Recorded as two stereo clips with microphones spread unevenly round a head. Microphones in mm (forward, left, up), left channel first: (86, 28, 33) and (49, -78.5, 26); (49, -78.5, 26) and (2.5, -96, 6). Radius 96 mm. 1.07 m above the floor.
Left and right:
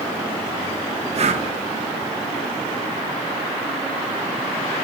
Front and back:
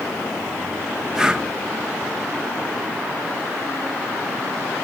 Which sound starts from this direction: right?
Breathing, at 1.1 s.